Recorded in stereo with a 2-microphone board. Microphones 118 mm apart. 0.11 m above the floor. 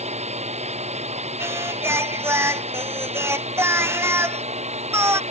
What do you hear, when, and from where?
0.0 s a drone: 70° right (ahead or behind)
1.4 s singing: 20° right (ahead or behind)